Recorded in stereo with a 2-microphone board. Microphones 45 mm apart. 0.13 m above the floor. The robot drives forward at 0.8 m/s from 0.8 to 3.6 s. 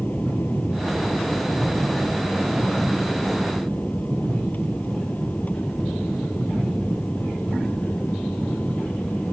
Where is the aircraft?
40° left (ahead or behind); by 9.3 s 35° left (ahead or behind).